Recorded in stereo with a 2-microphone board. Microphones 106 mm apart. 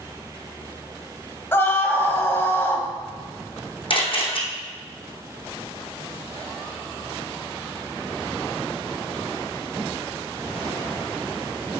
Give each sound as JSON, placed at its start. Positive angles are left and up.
{"t": 1.5, "sound": "a scream", "side_deg": 20, "distance_m": 1.9}
{"t": 3.9, "sound": "a camera shutter", "side_deg": 50, "distance_m": 2.5}